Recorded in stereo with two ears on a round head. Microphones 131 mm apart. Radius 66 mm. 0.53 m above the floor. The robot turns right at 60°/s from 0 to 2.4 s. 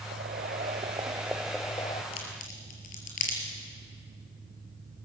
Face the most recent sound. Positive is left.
turn(degrees=55)  # may be behind; listen again after turning